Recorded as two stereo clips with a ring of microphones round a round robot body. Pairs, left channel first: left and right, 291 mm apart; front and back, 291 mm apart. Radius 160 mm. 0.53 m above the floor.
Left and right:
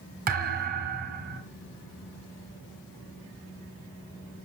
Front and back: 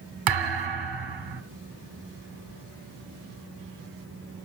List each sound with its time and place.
0.3 s a thud: 155° right, 1.3 m